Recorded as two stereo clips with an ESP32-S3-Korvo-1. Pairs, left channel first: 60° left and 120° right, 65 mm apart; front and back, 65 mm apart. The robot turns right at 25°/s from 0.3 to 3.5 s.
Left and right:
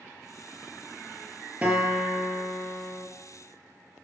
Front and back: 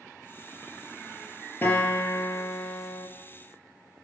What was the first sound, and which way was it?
A guitar, 55° right.